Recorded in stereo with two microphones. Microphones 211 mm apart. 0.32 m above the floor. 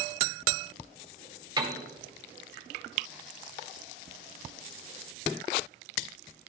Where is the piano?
20° right (ahead or behind), 1.1 m.